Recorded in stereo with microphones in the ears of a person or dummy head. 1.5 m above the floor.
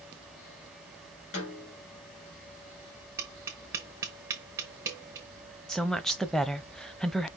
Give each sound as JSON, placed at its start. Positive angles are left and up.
{"t": 1.3, "sound": "a snare drum", "side_deg": 45, "distance_m": 2.0}
{"t": 3.2, "sound": "tapping", "side_deg": -15, "distance_m": 0.7}
{"t": 5.7, "sound": "a woman speaking", "side_deg": 5, "distance_m": 0.6}